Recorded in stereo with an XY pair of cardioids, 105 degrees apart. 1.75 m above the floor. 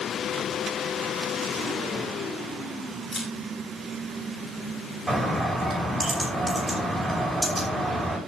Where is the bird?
20° right, 6 m.